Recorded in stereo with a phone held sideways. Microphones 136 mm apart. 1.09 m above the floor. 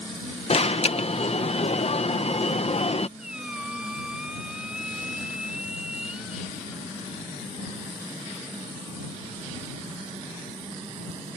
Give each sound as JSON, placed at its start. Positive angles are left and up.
{"t": 0.5, "sound": "an alarm", "side_deg": 45}
{"t": 3.2, "sound": "a squeak", "side_deg": -5}